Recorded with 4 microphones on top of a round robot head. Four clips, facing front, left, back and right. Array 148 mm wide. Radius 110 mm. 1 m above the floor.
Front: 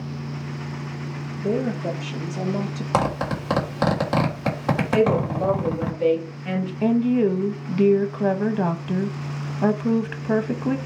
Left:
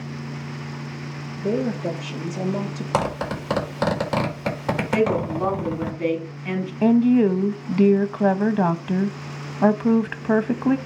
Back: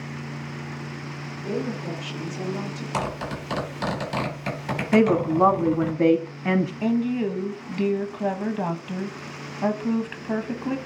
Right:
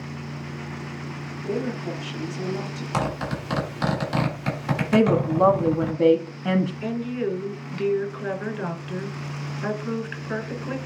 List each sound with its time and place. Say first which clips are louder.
1.4 s a woman speaking: left 5 dB, front 5 dB; 55° left, 4.5 m
2.9 s a zipper: left 3 dB, front 7 dB; 35° left, 3.5 m
4.9 s a woman speaking: right 3 dB, back 3 dB; 140° right, 2.0 m
6.8 s a woman speaking: left 11 dB, front 4 dB; 75° left, 1.2 m